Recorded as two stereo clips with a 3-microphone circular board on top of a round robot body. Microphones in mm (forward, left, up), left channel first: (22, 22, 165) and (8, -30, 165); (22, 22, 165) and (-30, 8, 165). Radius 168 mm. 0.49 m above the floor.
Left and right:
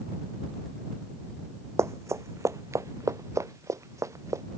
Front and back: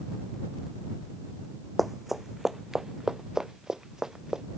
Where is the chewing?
No chewing in this recording.